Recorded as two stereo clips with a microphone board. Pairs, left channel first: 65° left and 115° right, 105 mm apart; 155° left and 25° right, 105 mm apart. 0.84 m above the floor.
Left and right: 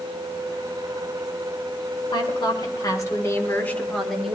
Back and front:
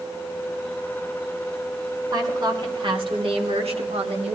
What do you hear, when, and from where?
2.1 s a woman speaking: 25° left, 3 m; by 4.3 s 25° right, 1.9 m